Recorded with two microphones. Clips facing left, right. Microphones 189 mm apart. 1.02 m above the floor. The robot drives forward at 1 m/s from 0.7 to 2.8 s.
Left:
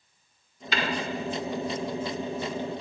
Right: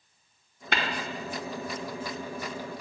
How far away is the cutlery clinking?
I don't hear cutlery clinking.